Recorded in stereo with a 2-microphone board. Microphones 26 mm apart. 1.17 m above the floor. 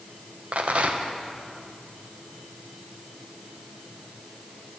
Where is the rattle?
50° right (ahead or behind), 0.9 m.